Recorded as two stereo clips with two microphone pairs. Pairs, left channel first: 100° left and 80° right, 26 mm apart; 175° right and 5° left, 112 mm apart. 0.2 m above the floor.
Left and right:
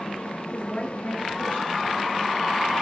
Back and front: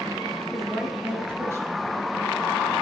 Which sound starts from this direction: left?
A woman speaking, at 0.5 s.